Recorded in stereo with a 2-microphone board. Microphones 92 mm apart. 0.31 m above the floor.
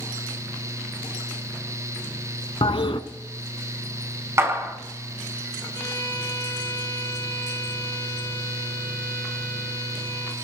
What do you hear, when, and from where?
2.6 s a toilet flushing: 80° left, 0.7 m
4.4 s a clap: 30° right (ahead or behind), 2.5 m
5.7 s a violin: 45° left (ahead or behind), 4.5 m